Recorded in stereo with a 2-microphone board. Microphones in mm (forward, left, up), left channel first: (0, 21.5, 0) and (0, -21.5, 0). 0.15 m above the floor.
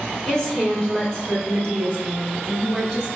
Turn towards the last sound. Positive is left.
turn(degrees=10)  # may be behind; listen again after turning